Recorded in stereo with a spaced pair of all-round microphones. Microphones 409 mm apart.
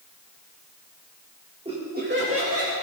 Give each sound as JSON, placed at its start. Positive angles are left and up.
{"t": 1.6, "sound": "laughter", "side_deg": -15, "distance_m": 1.8}